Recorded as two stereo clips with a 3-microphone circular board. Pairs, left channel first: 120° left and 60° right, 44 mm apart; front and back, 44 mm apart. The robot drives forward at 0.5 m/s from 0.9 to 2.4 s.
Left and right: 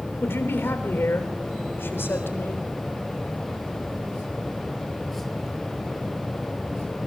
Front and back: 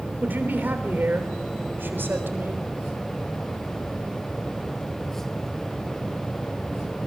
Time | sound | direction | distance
0.2 | a man speaking | 140° left | 3.5 m